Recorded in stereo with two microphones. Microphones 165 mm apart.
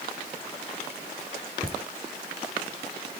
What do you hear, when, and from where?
1.6 s laughter: 30° right (ahead or behind), 3.5 m